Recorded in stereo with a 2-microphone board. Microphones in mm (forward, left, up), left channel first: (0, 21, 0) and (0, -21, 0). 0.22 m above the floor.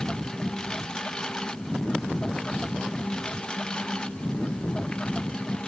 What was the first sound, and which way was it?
A lawn mower, 20° left (ahead or behind).